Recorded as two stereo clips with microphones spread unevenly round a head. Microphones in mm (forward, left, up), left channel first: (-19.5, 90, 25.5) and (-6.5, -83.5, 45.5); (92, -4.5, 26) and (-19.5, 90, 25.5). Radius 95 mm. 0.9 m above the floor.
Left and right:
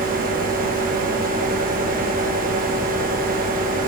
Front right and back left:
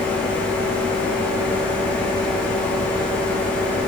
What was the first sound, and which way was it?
A fan, 120° right.